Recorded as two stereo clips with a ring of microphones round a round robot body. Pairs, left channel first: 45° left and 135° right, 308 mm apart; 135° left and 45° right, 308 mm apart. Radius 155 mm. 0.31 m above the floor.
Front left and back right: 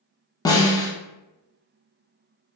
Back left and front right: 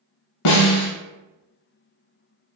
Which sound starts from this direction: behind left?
A snare drum, at 0.5 s.